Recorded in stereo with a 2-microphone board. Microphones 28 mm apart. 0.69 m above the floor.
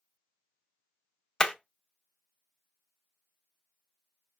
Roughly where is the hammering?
Left.